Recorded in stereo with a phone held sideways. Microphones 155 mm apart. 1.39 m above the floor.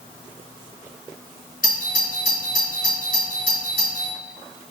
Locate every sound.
1.6 s a doorbell: 65° left (ahead or behind), 1.7 m